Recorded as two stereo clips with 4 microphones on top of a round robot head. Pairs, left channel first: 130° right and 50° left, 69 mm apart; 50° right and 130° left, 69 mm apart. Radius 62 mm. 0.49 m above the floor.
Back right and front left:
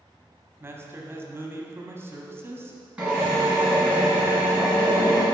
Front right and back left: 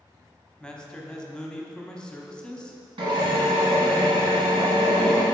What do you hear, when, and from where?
0.6 s a man speaking: 20° left, 1.0 m
3.0 s a drill: 125° left, 2 m